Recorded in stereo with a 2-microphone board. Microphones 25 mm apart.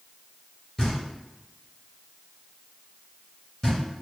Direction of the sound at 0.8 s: 25° left (ahead or behind).